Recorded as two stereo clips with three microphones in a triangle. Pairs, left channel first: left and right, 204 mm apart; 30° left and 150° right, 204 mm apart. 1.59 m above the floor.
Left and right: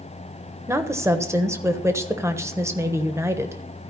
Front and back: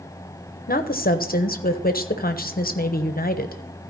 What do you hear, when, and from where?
0.7 s a woman speaking: 15° right, 1.0 m